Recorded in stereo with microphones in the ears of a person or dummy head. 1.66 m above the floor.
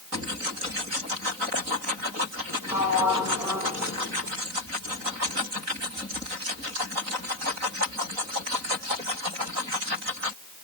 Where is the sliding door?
5° right (ahead or behind), 2.5 m.